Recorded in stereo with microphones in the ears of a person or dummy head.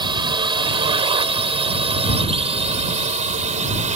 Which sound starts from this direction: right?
A drone, at 0.0 s.